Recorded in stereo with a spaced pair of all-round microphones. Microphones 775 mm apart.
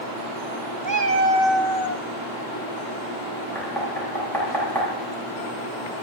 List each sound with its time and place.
0.8 s a cat meowing: 30° right (ahead or behind), 0.8 m; by 2.0 s 20° left (ahead or behind), 0.8 m
3.5 s knocking: 5° left (ahead or behind), 7.5 m